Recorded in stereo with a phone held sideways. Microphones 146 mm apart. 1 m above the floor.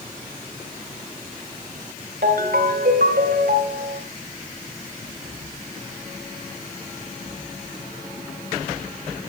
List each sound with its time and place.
2.2 s a ringtone: 75° right (ahead or behind), 3 m